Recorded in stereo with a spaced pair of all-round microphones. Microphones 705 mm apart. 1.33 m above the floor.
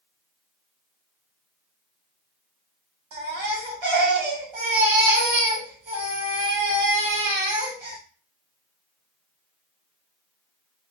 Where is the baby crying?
40° right (ahead or behind), 0.9 m.